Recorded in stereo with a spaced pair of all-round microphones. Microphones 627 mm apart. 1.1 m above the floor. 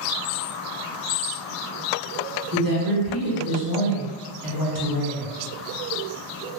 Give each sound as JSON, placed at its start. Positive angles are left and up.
{"t": 2.5, "sound": "a woman speaking", "side_deg": -35, "distance_m": 0.9}